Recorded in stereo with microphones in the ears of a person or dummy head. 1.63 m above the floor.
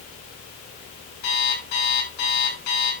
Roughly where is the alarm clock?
Left.